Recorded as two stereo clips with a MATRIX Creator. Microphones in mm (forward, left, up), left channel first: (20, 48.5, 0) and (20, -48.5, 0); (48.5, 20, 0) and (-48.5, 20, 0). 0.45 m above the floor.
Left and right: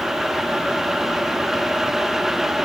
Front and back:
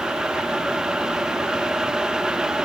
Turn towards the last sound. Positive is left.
No sound to turn to.